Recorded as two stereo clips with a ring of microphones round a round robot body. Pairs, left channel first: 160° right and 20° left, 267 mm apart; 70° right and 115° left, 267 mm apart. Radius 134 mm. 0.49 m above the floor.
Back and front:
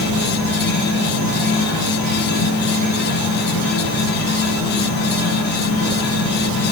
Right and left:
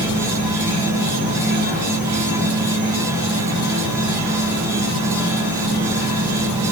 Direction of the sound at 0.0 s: 165° right.